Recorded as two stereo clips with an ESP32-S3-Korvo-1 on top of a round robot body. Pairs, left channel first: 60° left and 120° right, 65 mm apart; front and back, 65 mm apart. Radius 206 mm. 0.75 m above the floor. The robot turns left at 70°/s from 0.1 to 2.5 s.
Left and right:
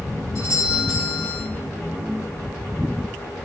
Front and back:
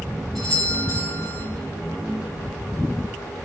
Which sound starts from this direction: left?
A doorbell, at 0.3 s.